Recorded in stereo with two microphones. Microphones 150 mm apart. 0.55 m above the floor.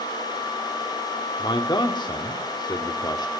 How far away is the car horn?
No car horn in this recording.